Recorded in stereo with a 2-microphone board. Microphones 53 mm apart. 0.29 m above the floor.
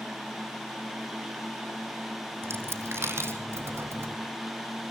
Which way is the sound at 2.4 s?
50° right (ahead or behind).